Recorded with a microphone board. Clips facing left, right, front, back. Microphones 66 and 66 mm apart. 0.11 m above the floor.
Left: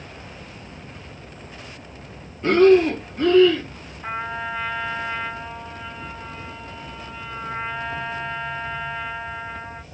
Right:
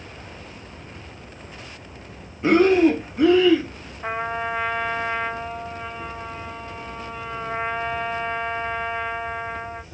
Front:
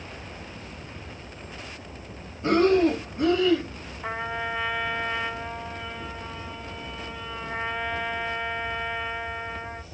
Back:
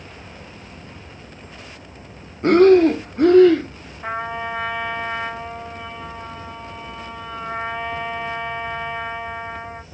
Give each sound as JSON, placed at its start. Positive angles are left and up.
{"t": 0.0, "sound": "an insect", "azimuth_deg": -165, "distance_m": 2.0}
{"t": 2.4, "sound": "breathing", "azimuth_deg": -165, "distance_m": 0.6}
{"t": 4.0, "sound": "a trumpet", "azimuth_deg": -140, "distance_m": 3.5}